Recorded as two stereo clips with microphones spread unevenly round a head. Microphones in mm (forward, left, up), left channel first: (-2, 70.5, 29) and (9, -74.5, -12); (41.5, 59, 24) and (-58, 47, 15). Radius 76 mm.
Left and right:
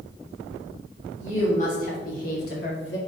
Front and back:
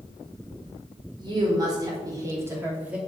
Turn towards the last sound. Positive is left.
turn(degrees=110)